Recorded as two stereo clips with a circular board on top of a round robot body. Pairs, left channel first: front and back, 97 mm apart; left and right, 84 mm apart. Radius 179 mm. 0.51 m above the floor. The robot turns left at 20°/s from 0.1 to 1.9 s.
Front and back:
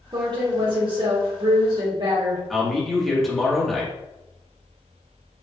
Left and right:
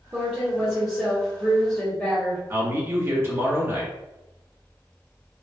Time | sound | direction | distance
0.1 | a woman speaking | 165° right | 1.1 m
2.5 | a man speaking | 85° right | 1.4 m